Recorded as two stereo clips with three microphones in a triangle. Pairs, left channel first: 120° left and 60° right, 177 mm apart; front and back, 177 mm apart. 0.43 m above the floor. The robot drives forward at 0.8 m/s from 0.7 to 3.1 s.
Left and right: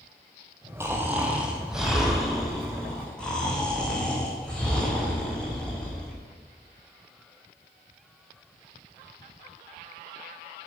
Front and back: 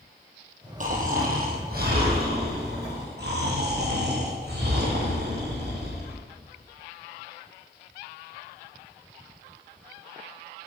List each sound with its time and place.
0.8 s snoring: 135° right, 2.5 m; by 6.2 s 155° right, 4 m